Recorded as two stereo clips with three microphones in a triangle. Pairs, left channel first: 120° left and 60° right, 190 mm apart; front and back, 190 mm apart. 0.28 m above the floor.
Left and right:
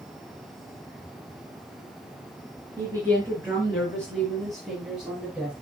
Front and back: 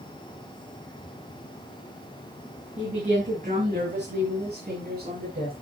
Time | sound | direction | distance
2.8 | a woman speaking | 135° right | 4.5 m